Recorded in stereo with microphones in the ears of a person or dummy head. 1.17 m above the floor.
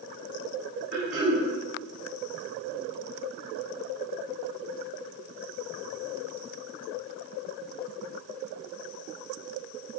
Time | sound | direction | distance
0.9 | throat clearing | 60° right (ahead or behind) | 1.6 m